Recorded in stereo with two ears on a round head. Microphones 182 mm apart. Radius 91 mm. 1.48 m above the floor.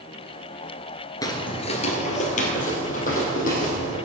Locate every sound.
1.2 s footsteps: 20° left (ahead or behind), 1.5 m; by 4.0 s 40° left (ahead or behind), 4.5 m